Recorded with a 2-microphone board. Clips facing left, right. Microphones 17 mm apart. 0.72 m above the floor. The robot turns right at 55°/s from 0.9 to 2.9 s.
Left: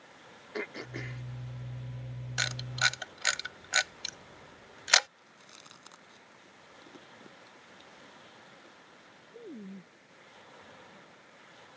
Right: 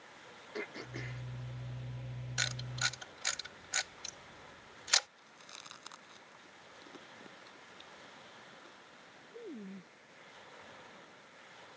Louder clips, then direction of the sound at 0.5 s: Left 4 dB; 20° left (ahead or behind).